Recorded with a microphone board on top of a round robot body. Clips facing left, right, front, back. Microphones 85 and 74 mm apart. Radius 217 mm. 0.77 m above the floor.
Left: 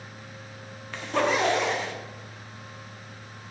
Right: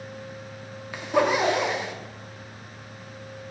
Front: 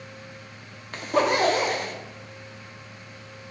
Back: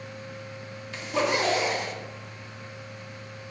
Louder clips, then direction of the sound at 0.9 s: Right 3 dB, front 4 dB; 15° right.